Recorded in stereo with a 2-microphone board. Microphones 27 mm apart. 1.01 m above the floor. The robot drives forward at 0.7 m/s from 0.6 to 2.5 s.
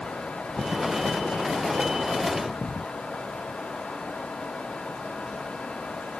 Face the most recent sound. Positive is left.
No sound to turn to.